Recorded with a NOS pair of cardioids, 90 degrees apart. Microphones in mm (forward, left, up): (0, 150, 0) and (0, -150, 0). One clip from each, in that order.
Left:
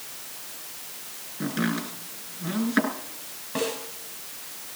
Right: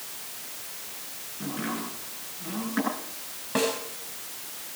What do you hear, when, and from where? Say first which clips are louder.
1.4 s chopping: left 4 dB; 55° left, 8.5 m
3.5 s a snare drum: right 2 dB; 30° right, 5.5 m